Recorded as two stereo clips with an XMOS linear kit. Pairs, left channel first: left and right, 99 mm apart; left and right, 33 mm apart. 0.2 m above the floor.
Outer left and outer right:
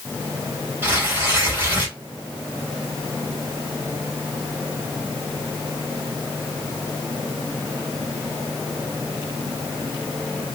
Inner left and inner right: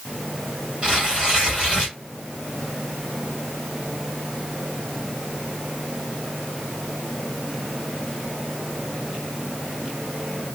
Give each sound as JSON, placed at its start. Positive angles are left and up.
{"t": 0.8, "sound": "tearing paper", "side_deg": -20, "distance_m": 4.5}